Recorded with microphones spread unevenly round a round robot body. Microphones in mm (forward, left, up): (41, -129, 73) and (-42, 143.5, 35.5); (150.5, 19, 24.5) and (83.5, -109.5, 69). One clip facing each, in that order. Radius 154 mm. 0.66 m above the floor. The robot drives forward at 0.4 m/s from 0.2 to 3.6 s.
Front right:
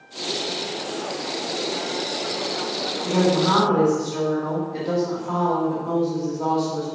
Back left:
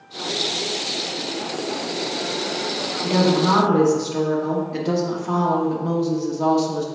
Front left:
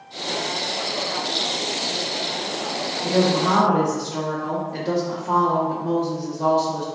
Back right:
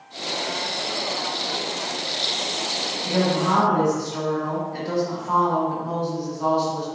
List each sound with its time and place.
3.0 s a woman speaking: 105° left, 1.4 m; by 6.8 s 115° left, 1.5 m